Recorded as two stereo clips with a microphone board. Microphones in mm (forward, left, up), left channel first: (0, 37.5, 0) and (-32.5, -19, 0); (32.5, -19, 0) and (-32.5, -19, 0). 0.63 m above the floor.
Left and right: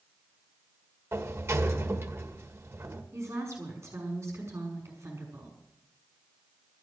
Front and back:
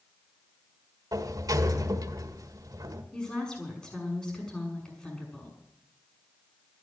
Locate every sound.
1.1 s a sliding door: 165° right, 1.6 m
3.1 s a woman speaking: 75° right, 6 m